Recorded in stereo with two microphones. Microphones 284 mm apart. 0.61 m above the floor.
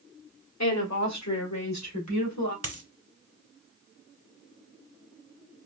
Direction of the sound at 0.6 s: 70° left (ahead or behind).